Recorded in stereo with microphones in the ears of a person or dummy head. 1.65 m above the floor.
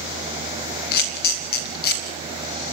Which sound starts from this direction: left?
A camera shutter, at 0.9 s.